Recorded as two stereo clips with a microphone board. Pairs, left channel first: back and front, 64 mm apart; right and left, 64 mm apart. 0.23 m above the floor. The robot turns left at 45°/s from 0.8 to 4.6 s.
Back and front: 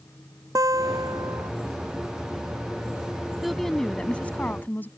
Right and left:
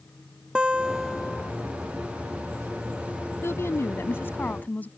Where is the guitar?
15° left; by 1.5 s 20° right.